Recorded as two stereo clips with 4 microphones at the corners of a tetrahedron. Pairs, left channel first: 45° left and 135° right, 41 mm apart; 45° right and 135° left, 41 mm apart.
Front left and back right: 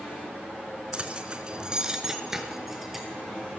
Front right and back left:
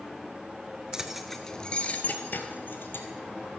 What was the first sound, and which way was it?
Keys jangling, 170° right.